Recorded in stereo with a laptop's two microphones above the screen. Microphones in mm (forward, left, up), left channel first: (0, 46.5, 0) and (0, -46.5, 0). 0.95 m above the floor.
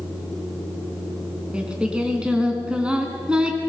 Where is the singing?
10° right (ahead or behind), 4 m.